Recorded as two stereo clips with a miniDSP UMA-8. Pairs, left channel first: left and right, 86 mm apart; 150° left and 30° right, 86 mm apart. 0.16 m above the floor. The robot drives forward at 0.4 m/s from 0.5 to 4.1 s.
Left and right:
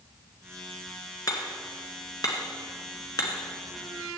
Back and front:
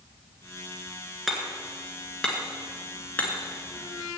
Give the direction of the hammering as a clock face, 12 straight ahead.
10 o'clock.